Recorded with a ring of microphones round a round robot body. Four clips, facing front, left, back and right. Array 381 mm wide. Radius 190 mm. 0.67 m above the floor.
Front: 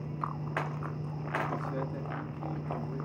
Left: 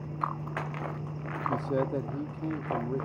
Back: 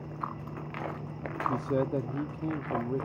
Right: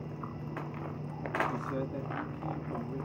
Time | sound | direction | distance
1.5 | a man speaking | 145° left | 1.0 m